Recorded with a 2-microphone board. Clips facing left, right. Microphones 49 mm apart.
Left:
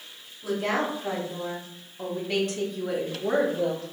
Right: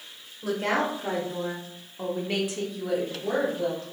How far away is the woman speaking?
About 1.6 m.